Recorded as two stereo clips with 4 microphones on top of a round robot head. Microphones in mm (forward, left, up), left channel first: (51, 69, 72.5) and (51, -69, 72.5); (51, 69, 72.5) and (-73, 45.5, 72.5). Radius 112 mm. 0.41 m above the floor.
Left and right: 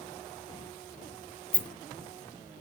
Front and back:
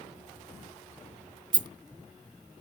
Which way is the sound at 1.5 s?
165° left.